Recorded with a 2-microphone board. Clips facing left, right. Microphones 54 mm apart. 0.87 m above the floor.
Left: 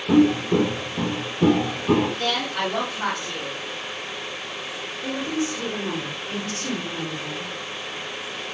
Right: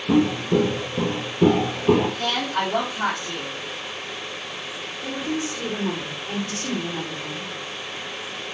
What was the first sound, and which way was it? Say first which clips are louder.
Footsteps: left 2 dB; 5° left (ahead or behind).